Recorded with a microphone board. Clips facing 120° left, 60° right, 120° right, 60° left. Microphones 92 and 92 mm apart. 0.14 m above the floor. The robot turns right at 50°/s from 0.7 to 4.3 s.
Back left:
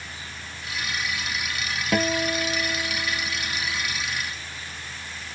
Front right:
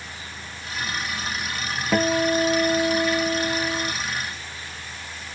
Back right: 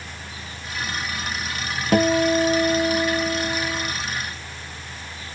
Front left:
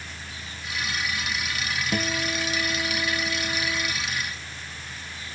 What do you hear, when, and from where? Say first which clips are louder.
1.9 s a guitar: front right 4 dB, back right 13 dB; 140° right; by 3.9 s 40° right